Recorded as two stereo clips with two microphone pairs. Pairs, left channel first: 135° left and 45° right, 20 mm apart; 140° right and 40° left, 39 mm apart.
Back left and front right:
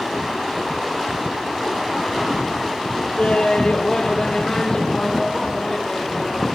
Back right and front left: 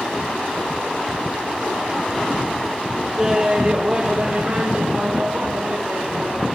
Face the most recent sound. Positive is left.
turn(degrees=90)